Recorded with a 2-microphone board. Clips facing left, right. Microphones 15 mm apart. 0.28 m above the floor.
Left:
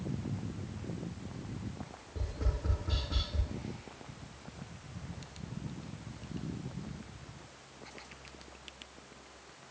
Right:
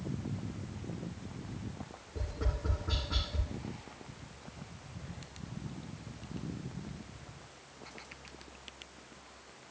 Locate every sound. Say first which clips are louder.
2.1 s tapping: right 1 dB; centre (ahead or behind), 5.5 m